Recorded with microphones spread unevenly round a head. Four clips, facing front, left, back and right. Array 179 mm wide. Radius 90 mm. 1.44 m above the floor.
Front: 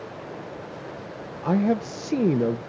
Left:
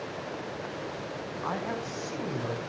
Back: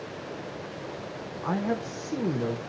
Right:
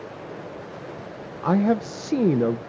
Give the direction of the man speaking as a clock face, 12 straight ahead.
1 o'clock.